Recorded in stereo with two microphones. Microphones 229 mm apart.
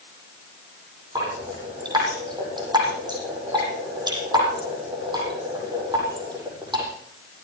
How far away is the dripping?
About 8 m.